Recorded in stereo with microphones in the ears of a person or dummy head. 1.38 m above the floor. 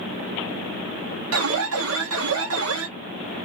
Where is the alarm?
65° right (ahead or behind), 1.1 m.